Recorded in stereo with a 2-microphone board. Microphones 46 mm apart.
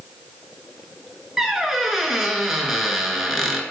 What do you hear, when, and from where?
1.4 s a squeak: 10° right (ahead or behind), 0.6 m